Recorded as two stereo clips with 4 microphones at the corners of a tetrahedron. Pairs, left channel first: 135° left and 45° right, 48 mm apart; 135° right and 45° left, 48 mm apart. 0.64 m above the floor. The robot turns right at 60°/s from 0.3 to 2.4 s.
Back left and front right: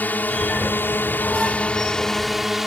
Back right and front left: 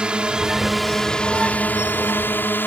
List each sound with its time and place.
0.0 s a drone: 105° left; by 2.7 s 130° right